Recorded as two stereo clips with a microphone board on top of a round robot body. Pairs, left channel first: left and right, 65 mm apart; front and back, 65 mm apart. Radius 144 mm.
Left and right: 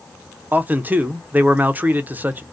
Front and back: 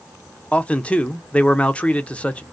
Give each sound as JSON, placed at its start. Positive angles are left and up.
{"t": 0.5, "sound": "a man speaking", "azimuth_deg": -55, "distance_m": 0.7}